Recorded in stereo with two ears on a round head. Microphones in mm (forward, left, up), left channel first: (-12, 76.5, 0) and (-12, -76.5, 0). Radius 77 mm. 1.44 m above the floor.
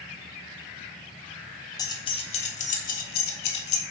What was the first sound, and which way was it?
Keys jangling, 20° left (ahead or behind).